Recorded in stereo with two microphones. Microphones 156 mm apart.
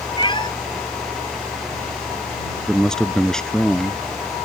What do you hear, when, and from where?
0.2 s a cat meowing: 30° left (ahead or behind)
2.7 s a man speaking: 5° left (ahead or behind)